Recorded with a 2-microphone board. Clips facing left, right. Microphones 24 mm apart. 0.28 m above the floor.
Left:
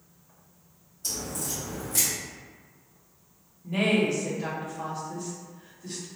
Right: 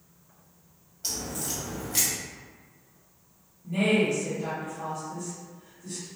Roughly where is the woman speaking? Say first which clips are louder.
Even; left.